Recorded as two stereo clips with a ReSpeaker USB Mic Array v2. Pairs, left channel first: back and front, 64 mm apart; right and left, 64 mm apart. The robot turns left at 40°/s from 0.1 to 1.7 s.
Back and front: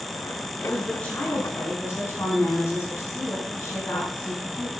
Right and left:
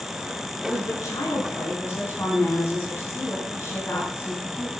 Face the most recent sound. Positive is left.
turn(degrees=-140)